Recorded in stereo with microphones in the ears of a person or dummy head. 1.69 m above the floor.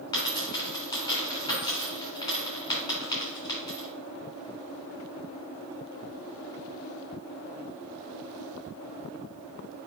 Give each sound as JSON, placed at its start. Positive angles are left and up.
{"t": 0.1, "sound": "a dropped coin", "side_deg": 20, "distance_m": 2.5}